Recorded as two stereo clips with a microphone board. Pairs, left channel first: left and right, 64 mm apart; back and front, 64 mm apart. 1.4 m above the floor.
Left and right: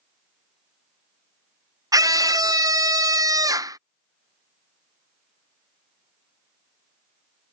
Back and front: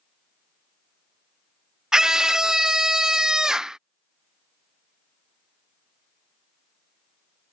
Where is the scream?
80° right.